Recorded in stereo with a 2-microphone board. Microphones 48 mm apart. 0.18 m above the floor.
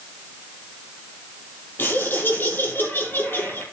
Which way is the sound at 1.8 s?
50° left (ahead or behind).